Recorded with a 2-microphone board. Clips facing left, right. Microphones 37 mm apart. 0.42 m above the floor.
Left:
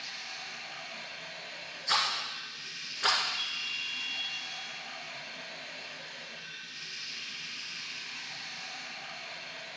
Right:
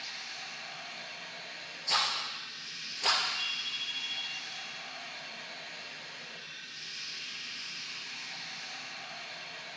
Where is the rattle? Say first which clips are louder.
Left 1 dB; 65° left (ahead or behind), 2.5 m.